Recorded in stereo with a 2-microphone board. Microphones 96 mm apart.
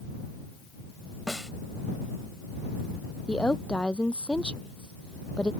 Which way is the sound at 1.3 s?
Centre (ahead or behind).